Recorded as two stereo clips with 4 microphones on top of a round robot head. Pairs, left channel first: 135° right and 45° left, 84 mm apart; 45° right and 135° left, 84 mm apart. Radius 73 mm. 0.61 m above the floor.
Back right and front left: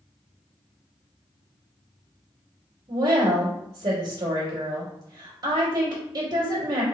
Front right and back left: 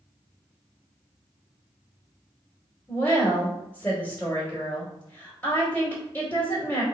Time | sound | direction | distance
2.9 | a woman speaking | 15° left | 2.5 m